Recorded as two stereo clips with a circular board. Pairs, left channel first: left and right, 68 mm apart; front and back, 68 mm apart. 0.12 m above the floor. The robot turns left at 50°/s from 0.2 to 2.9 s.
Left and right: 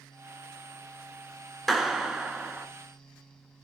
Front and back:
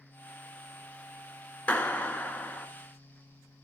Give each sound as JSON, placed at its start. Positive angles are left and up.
{"t": 1.7, "sound": "a clap", "azimuth_deg": 5, "distance_m": 1.1}